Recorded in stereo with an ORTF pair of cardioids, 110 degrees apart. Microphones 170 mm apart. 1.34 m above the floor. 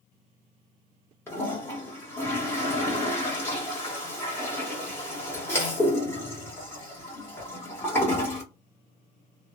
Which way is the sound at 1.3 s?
15° left.